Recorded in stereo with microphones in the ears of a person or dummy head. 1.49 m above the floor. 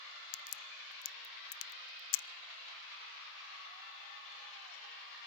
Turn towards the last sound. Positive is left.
turn(degrees=75)  # may be behind; listen again after turning